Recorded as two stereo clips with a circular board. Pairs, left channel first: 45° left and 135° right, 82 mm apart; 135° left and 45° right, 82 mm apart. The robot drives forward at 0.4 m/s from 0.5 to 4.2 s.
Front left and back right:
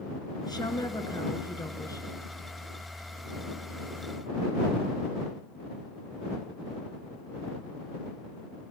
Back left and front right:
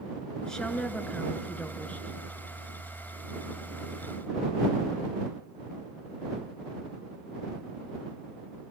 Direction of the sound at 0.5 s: 55° left.